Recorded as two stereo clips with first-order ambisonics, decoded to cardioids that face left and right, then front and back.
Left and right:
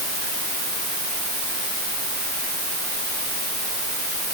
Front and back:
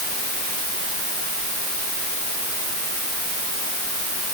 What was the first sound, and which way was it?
Only background noise.